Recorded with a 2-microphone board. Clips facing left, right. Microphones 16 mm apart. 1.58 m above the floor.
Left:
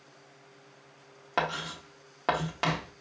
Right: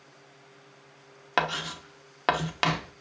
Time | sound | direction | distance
1.4 | writing | 45° right (ahead or behind) | 0.7 m